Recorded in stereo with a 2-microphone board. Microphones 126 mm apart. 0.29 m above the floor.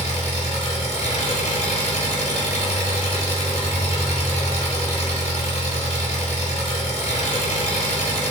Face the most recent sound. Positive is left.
turn(degrees=65)  # may be behind; listen again after turning